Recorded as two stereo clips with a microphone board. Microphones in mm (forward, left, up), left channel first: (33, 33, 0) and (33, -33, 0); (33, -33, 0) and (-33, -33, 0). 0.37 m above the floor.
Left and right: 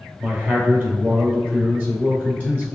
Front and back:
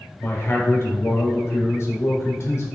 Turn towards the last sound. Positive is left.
turn(degrees=-35)